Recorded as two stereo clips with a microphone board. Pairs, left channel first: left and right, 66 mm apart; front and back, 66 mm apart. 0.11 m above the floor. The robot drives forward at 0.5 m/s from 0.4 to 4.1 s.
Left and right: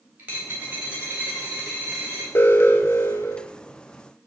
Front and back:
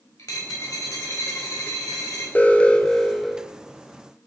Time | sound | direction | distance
0.2 | a dropped coin | 25° right | 5.5 m
2.4 | an alarm | 50° left | 1.1 m